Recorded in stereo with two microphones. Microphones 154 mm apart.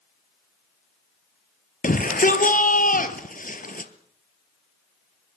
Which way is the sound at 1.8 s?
65° left (ahead or behind).